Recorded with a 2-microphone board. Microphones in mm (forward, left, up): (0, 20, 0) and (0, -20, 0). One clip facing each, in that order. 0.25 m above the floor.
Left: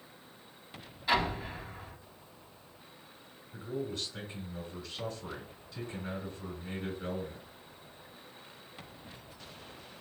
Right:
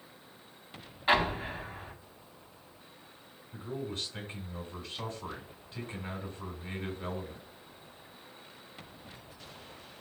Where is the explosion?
40° right (ahead or behind), 0.6 m.